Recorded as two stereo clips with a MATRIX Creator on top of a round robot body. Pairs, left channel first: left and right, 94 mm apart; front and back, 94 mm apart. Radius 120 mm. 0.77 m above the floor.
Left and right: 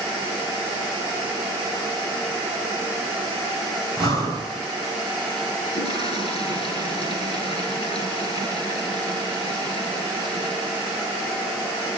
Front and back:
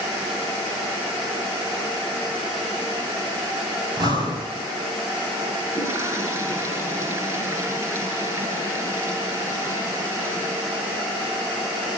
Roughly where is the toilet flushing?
Behind left.